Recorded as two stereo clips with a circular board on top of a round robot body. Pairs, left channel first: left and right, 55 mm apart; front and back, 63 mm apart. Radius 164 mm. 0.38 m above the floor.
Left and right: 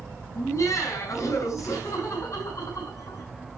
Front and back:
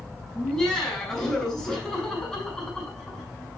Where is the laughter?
80° left, 6.5 m.